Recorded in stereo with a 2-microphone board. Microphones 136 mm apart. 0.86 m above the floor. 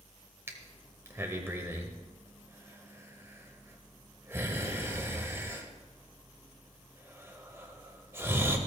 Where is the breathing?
15° right (ahead or behind), 1.3 m.